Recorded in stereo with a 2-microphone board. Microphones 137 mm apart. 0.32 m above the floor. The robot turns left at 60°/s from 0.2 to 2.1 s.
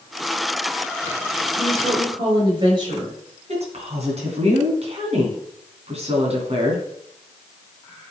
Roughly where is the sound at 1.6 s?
Ahead.